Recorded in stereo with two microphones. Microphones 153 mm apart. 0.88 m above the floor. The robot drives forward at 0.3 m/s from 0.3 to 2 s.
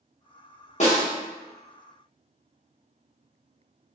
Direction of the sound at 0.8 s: 50° left (ahead or behind).